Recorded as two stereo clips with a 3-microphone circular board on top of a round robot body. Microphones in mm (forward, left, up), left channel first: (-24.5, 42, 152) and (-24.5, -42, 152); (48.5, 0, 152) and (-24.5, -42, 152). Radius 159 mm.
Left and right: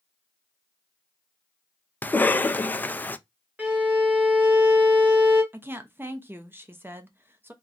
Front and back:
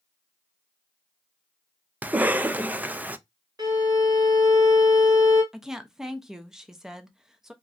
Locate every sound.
2.0 s a cough: 150° left, 0.5 m
3.6 s a violin: 155° right, 1.5 m
5.5 s a woman speaking: 75° right, 0.7 m